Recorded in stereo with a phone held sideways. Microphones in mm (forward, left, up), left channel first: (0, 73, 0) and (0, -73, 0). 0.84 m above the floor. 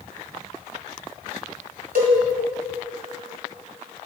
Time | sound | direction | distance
1.9 | a cowbell | 80° right | 1.8 m